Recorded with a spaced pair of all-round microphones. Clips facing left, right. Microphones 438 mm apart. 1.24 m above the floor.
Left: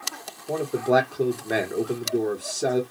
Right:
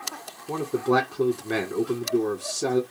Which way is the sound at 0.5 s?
15° right (ahead or behind).